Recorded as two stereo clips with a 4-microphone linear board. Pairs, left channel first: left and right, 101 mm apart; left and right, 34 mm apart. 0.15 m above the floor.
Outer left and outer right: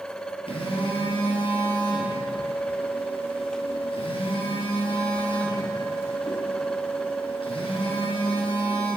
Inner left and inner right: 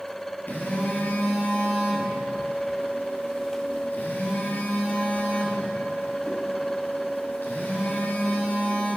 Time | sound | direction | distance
0.5 | a phone buzzing | 65° left (ahead or behind) | 1.5 m